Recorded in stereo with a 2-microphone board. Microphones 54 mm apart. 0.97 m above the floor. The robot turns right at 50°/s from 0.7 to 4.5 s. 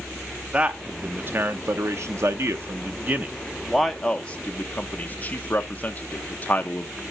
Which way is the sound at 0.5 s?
20° right (ahead or behind).